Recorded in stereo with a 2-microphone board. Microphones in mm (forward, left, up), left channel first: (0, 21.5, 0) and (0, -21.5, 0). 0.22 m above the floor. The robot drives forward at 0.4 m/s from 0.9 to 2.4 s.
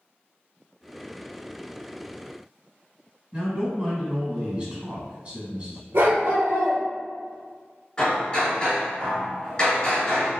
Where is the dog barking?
75° right (ahead or behind), 1.2 m.